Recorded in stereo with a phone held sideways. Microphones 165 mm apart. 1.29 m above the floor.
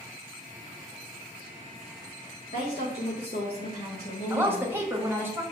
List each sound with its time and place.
2.5 s a woman speaking: 70° left (ahead or behind), 1.8 m; by 5.3 s 60° left (ahead or behind), 2 m
4.3 s a woman speaking: 15° right (ahead or behind), 1.6 m